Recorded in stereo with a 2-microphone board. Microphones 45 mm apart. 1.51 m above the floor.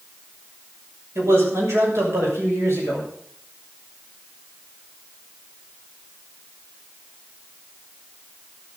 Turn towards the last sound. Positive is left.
turn(degrees=-85)